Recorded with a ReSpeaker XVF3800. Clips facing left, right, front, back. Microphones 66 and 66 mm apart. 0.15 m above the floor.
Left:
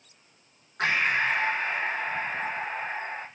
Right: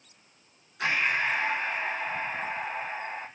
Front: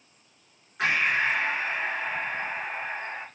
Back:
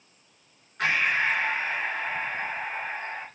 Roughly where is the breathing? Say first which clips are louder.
Left 2 dB, even; left.